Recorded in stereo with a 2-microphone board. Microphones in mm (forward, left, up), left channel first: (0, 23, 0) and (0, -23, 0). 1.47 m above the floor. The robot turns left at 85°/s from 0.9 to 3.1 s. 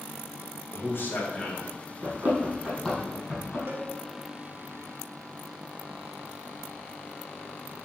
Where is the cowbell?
55° right (ahead or behind), 1.5 m.